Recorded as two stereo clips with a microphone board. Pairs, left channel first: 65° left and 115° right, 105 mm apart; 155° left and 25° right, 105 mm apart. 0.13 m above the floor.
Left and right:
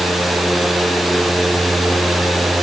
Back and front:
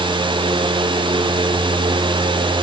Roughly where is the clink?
I don't hear a clink.